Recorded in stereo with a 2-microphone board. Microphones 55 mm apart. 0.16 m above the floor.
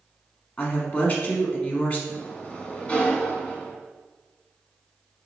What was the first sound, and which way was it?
A woman speaking, 35° left (ahead or behind).